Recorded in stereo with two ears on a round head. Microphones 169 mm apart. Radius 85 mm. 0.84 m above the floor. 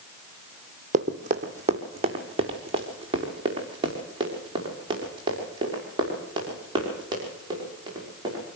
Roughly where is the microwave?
No microwave in this recording.